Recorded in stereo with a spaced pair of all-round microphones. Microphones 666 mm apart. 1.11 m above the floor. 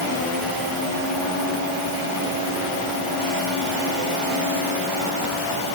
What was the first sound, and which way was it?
Only background noise.